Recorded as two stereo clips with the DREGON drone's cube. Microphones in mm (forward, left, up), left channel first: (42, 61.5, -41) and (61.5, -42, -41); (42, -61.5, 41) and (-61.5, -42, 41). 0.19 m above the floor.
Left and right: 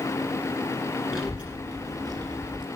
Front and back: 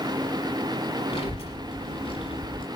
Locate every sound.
1.1 s a child speaking: 10° left, 1.5 m; by 2.7 s 45° right, 1.9 m